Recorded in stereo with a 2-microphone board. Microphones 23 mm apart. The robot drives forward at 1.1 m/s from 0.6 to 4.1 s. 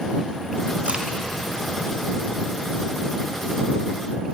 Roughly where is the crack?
Right.